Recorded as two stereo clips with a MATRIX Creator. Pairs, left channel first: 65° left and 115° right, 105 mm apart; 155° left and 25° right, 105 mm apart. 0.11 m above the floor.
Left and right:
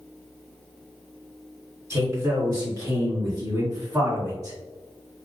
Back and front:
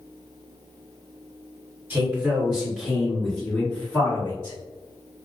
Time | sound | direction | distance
1.9 | a man speaking | 80° right | 1.9 m